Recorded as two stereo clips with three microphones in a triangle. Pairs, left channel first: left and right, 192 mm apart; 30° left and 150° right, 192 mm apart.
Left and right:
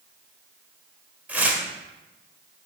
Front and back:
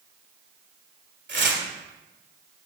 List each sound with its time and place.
1.3 s tearing paper: 175° right, 1.4 m